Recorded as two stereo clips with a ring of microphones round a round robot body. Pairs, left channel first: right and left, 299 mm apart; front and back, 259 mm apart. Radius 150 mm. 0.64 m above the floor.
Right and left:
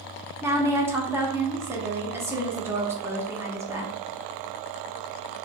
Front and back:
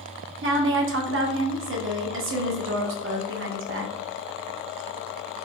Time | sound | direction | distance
0.4 | a woman speaking | 170° left | 0.8 m